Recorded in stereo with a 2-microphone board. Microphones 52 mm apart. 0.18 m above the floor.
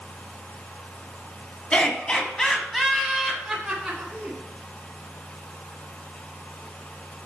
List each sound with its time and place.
1.7 s laughter: 25° left (ahead or behind), 1.5 m; by 4.4 s 10° right (ahead or behind), 2 m